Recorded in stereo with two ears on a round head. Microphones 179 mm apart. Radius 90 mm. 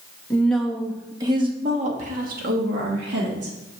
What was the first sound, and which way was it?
A woman speaking, 10° left (ahead or behind).